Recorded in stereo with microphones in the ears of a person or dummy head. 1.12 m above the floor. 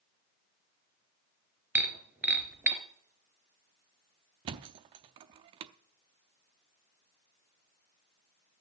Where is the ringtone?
I don't hear a ringtone.